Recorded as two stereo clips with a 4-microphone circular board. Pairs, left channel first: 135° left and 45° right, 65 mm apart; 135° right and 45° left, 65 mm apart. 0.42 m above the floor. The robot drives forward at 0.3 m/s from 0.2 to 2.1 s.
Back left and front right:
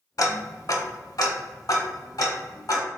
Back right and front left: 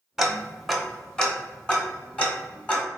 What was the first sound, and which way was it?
Ticking, 125° left.